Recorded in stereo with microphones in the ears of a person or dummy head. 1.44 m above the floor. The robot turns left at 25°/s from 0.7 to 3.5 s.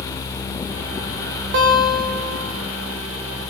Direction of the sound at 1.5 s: 55° right (ahead or behind).